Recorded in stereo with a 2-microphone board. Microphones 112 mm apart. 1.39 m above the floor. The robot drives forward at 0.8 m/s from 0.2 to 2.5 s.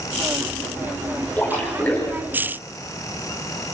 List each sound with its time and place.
1.4 s a splash: 15° left (ahead or behind), 5 m